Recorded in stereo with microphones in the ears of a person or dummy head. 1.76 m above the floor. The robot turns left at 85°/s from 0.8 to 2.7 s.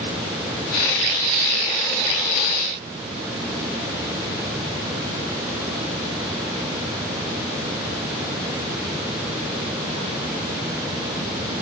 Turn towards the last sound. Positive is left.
No sound to turn to.